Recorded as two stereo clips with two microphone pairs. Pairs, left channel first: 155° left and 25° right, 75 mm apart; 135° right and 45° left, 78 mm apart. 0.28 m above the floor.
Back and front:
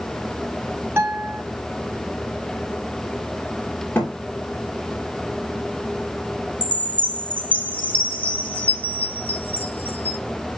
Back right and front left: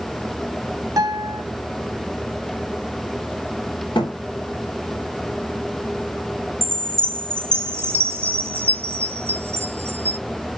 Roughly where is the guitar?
Ahead left.